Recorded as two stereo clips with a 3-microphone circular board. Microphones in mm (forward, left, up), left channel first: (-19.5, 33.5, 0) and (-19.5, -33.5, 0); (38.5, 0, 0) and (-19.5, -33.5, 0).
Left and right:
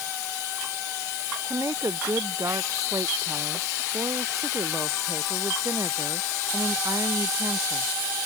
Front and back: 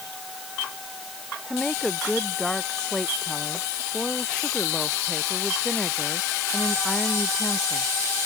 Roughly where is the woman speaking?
Ahead right.